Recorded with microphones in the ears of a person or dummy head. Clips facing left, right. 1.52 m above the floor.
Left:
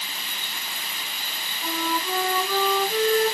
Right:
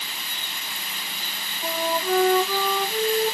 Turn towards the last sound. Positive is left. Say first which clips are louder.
# right 3 dB
turn(degrees=-5)  # may be behind; listen again after turning